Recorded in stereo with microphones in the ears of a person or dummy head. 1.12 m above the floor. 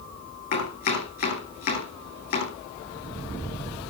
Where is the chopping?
55° left (ahead or behind), 9.5 m.